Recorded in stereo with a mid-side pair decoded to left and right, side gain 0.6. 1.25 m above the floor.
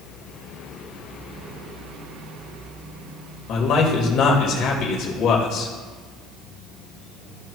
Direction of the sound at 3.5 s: 65° left.